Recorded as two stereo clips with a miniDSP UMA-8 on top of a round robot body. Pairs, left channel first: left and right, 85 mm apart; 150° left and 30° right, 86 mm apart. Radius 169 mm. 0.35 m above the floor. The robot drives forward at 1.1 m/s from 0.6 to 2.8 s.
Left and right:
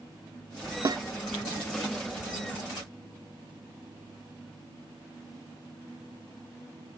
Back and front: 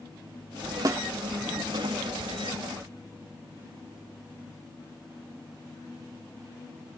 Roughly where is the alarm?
I don't hear an alarm.